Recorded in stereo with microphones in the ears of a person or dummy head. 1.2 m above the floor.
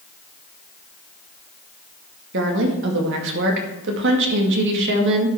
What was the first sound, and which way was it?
A woman speaking, 70° right (ahead or behind).